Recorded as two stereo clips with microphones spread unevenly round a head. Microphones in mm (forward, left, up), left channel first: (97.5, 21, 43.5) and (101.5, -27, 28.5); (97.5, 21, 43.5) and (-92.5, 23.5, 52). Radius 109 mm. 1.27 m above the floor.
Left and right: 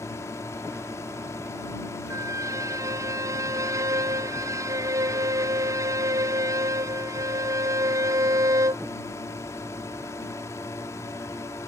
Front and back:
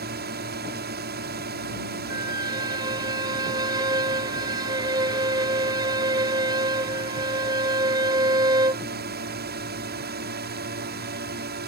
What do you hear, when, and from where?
0.0 s a drone: 145° left
2.1 s a violin: 110° right